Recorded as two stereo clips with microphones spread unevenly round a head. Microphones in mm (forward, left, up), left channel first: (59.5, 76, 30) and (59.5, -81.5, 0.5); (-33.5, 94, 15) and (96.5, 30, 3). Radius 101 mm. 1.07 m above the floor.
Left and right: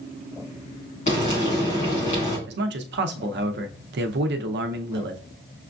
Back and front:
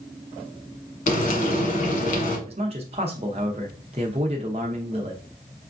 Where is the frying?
135° left, 1.5 m.